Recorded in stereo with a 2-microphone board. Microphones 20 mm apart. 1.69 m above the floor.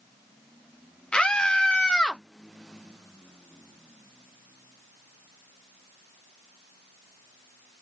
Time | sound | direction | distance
1.1 | a scream | 65° left (ahead or behind) | 1.4 m